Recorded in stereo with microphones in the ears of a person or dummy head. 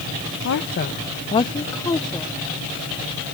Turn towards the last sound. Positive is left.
turn(degrees=5)  # may be behind; listen again after turning